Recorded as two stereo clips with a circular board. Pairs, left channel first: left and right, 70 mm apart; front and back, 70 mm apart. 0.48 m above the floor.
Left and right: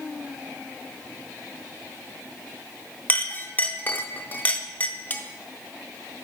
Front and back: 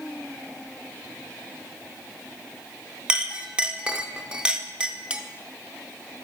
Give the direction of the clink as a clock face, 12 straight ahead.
8 o'clock.